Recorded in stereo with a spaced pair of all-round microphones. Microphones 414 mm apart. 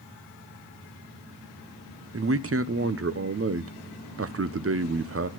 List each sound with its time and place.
2.1 s a man speaking: 35° right (ahead or behind), 0.7 m